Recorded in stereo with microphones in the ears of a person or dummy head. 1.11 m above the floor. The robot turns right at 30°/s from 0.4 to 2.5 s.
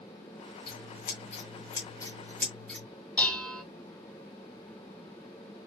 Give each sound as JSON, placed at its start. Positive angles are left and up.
{"t": 0.7, "sound": "scissors", "side_deg": 55, "distance_m": 1.7}
{"t": 3.2, "sound": "dishes clattering", "side_deg": 10, "distance_m": 0.8}